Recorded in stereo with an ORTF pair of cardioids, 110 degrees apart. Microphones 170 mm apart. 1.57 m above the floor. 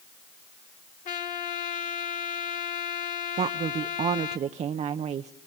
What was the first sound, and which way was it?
A trumpet, 55° left.